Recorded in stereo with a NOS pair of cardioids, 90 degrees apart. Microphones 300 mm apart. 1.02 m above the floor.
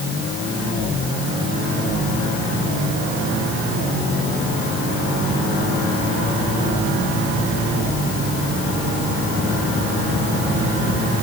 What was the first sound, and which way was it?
Only background noise.